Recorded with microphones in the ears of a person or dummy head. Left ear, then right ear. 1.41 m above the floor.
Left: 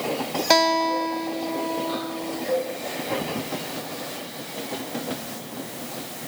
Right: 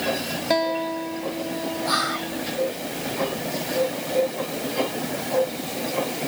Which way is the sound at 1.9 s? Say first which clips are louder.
Right 5 dB; 60° right (ahead or behind).